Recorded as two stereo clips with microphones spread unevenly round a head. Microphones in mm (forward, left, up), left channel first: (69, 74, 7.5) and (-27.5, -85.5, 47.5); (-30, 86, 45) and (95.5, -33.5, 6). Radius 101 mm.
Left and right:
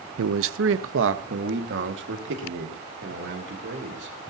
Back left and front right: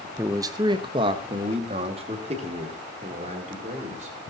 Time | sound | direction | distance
0.2 | a man speaking | 120° right | 0.6 m